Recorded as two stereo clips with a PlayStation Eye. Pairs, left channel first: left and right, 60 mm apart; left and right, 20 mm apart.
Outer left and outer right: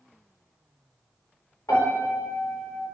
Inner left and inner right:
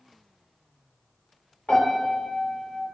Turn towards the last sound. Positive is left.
turn(degrees=60)  # may be behind; listen again after turning